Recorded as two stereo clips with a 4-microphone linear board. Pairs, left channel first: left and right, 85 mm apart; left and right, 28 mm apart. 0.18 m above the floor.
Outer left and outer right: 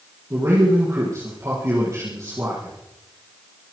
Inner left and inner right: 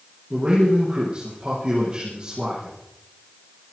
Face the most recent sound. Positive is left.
turn(degrees=-35)  # may be behind; listen again after turning